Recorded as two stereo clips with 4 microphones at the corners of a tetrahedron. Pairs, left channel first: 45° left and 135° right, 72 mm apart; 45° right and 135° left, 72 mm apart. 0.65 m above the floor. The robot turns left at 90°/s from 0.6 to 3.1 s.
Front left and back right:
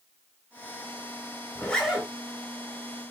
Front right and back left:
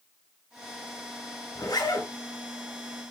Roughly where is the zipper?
Ahead.